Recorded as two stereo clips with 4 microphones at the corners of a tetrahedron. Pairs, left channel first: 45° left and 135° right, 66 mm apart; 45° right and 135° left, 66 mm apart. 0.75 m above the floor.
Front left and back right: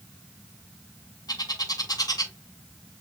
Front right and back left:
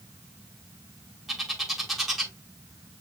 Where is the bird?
45° left, 1.2 m.